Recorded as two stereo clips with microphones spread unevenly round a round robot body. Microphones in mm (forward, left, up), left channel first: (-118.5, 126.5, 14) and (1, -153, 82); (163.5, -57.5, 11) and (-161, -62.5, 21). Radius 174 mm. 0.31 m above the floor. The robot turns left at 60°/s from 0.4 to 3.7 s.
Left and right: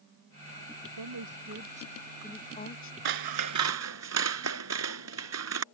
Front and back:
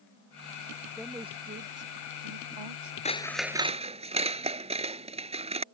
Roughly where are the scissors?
Right.